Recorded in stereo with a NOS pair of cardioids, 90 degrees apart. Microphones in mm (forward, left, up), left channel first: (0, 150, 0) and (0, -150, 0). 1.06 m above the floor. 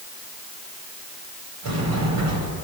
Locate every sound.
1.6 s a sliding door: 70° right, 4.5 m